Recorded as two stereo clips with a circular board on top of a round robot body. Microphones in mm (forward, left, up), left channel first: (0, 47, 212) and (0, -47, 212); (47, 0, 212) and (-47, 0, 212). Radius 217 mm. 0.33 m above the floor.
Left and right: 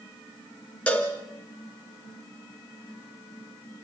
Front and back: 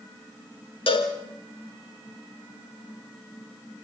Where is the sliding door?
No sliding door in this recording.